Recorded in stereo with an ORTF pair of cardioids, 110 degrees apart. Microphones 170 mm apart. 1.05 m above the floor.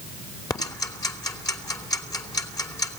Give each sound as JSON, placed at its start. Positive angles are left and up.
{"t": 0.5, "sound": "ticking", "azimuth_deg": 20, "distance_m": 2.5}